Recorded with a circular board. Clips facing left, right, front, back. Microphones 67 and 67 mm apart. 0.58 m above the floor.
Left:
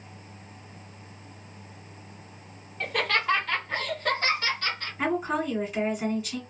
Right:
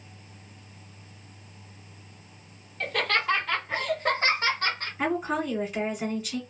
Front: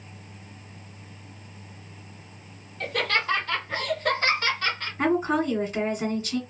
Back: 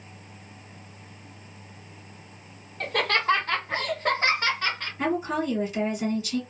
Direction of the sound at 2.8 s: 165° left.